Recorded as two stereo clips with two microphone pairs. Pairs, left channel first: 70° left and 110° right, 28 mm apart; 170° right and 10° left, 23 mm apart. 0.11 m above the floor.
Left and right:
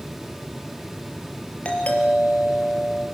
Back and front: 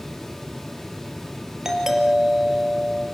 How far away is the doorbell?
About 4 m.